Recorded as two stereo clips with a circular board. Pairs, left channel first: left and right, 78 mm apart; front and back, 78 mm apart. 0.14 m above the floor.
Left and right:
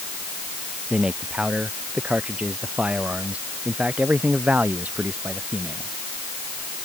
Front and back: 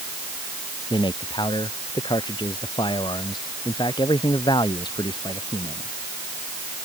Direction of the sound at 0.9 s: 10° right.